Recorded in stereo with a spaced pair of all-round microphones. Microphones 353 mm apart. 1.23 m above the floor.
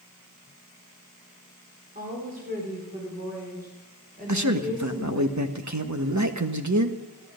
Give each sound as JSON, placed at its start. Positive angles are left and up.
{"t": 1.9, "sound": "a woman speaking", "side_deg": -25, "distance_m": 4.5}
{"t": 4.3, "sound": "a man speaking", "side_deg": -50, "distance_m": 1.4}